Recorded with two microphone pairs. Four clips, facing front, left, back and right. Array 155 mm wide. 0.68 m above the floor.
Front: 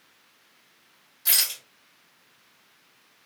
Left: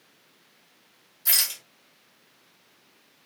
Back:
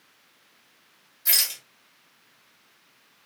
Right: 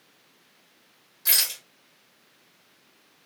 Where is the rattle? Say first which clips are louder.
Right 1 dB, even; 85° right, 1.3 m.